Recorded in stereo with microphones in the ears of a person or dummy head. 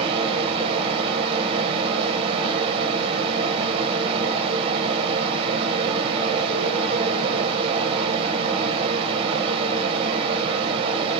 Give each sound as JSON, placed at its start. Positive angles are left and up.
{"t": 0.0, "sound": "a fan", "side_deg": -35, "distance_m": 0.7}